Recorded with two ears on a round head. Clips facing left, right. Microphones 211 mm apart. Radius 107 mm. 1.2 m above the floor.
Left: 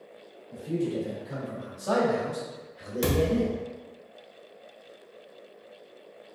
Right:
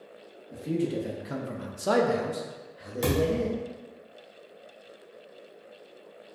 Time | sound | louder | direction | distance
0.5 | a man speaking | right 1 dB | 75° right (ahead or behind) | 1.1 m
3.0 | a thud | left 1 dB | 10° left (ahead or behind) | 1.1 m